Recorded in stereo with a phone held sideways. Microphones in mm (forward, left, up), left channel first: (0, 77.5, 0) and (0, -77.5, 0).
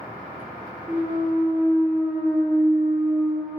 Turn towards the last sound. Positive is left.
turn(degrees=-5)  # may be behind; listen again after turning